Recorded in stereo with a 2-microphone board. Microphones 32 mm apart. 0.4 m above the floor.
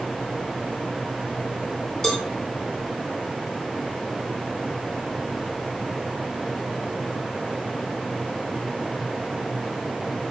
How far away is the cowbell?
About 4 m.